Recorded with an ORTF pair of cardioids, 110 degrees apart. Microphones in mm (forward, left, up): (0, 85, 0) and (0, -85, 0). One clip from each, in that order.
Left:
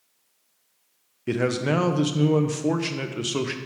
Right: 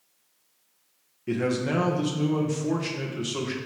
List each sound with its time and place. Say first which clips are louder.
1.3 s a man speaking: left 3 dB; 35° left, 0.9 m